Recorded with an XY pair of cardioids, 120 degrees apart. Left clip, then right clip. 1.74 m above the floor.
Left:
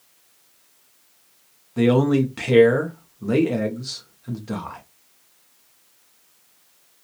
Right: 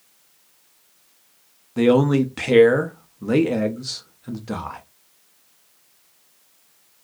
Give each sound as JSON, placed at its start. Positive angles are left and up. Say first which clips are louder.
{"t": 1.8, "sound": "a man speaking", "louder": "right 2 dB", "azimuth_deg": -15, "distance_m": 0.7}